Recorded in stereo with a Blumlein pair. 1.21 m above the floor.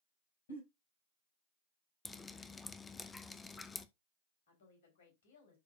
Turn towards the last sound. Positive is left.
turn(degrees=55)